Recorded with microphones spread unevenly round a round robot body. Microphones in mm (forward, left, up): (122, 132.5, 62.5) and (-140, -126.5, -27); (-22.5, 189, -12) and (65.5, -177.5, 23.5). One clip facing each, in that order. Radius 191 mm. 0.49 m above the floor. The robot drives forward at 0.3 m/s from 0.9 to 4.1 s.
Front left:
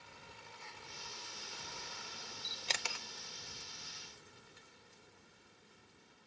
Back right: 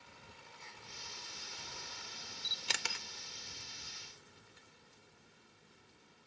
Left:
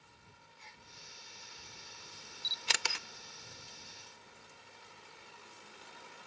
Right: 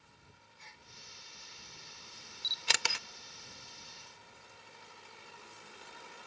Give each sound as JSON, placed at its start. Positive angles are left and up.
{"t": 0.6, "sound": "a gasp", "azimuth_deg": -50, "distance_m": 4.0}
{"t": 2.4, "sound": "a camera shutter", "azimuth_deg": -55, "distance_m": 0.6}